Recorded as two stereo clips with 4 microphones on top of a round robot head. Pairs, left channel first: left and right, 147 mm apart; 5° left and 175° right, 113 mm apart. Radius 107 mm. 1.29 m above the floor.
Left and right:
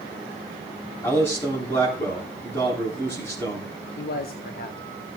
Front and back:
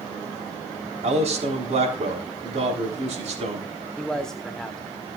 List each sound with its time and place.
1.0 s a man speaking: 165° left, 3.5 m
4.0 s a man speaking: 90° left, 1.0 m